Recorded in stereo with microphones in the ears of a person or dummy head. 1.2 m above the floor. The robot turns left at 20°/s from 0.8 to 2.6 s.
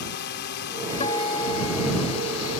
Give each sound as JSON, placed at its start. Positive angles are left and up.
{"t": 0.0, "sound": "a drone", "azimuth_deg": 120}
{"t": 1.0, "sound": "a guitar", "side_deg": 35}